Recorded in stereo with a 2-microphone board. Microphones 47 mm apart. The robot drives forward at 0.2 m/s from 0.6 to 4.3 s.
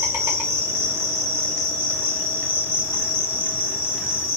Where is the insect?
75° right (ahead or behind), 1.1 m; by 4.4 s 50° right (ahead or behind), 1.5 m.